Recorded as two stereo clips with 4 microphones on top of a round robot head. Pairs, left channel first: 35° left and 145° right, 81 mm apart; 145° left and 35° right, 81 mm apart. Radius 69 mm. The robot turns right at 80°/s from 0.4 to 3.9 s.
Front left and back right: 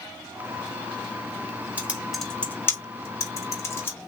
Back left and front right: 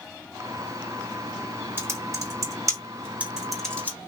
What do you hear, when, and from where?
1.8 s typing on a keyboard: 85° right, 1.7 m; by 4.1 s 85° left, 1.7 m